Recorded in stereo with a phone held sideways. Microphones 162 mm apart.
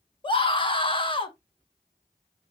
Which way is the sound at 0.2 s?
30° left (ahead or behind).